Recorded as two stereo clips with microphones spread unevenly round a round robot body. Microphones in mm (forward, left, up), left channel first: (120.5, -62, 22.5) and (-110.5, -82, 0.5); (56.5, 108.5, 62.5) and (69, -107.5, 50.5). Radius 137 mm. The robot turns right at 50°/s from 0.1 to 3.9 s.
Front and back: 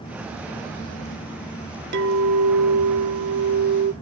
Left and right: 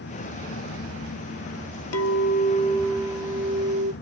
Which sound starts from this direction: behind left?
A clink, at 1.9 s.